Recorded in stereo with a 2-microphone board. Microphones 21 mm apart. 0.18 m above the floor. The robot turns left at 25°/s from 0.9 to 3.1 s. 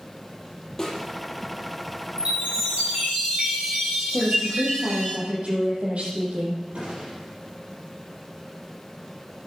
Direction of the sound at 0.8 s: 15° left (ahead or behind).